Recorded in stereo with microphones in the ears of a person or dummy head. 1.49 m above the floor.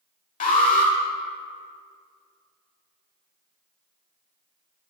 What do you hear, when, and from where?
0.4 s an alarm: 35° left (ahead or behind), 1.0 m